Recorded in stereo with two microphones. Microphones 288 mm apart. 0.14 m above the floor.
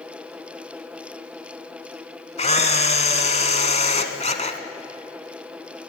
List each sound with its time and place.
2.4 s a camera shutter: 25° left (ahead or behind), 1.3 m